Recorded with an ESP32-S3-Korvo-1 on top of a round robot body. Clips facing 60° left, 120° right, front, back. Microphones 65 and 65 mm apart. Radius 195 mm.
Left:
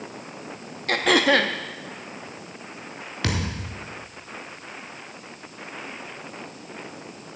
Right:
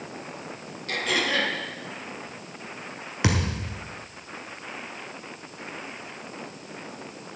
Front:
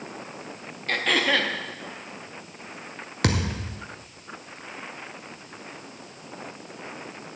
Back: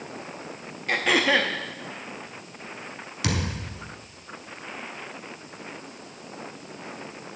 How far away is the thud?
About 1.0 m.